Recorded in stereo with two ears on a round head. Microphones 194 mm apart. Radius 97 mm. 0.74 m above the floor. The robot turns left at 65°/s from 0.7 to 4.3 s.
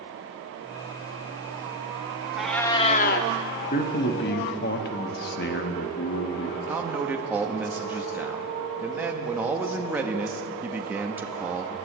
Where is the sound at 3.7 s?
125° left, 1.0 m; by 6.6 s 85° left, 1.0 m.